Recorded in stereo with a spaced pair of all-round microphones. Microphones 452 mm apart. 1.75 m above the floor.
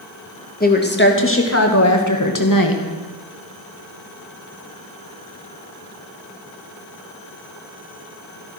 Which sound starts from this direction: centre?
A woman speaking, at 0.6 s.